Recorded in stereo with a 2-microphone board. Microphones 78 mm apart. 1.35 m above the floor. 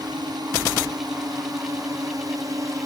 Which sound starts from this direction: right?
A drone, at 0.0 s.